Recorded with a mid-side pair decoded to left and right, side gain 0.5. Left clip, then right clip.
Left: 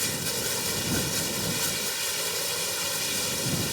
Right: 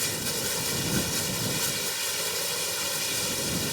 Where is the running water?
Straight ahead.